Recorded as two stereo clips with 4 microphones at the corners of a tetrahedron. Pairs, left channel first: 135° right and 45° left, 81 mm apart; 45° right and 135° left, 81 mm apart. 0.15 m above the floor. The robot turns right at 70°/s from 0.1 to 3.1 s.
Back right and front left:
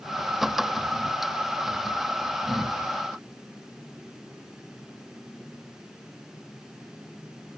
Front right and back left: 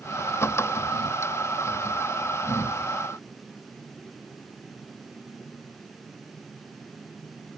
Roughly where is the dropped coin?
I don't hear a dropped coin.